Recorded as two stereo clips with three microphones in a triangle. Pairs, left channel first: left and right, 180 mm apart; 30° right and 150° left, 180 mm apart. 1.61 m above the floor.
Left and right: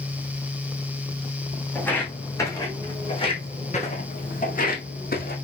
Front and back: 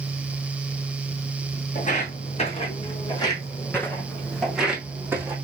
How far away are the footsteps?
About 3.5 m.